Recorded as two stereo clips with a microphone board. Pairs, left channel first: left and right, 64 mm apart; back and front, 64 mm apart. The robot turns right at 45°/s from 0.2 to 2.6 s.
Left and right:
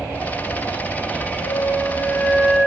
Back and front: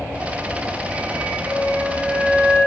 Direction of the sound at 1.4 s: 40° right.